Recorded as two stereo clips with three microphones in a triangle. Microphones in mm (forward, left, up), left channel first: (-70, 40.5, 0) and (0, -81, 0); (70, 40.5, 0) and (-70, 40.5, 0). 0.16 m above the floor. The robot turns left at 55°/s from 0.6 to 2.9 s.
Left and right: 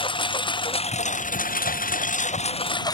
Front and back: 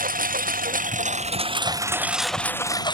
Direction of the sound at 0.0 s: 170° left.